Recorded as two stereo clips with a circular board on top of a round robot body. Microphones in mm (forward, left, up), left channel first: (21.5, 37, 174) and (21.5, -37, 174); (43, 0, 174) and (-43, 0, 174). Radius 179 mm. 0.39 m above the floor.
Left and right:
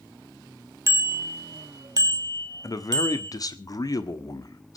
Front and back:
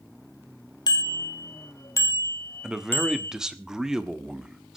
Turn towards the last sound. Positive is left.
turn(degrees=100)